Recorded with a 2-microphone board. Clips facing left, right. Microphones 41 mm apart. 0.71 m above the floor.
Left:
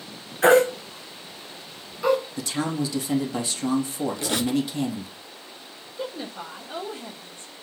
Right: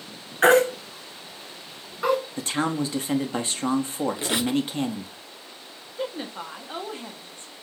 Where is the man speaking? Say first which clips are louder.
Right 1 dB; 35° right (ahead or behind), 0.8 m.